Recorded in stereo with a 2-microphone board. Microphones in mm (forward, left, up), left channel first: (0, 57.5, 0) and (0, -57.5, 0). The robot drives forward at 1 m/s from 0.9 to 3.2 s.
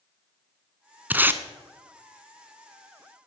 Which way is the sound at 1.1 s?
15° right (ahead or behind).